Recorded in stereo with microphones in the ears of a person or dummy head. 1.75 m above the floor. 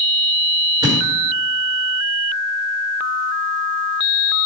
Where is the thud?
25° right (ahead or behind), 1.9 m.